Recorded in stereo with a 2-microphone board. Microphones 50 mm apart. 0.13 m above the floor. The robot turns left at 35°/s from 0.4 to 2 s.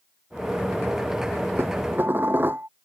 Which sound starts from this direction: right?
Dishes clattering, at 1.6 s.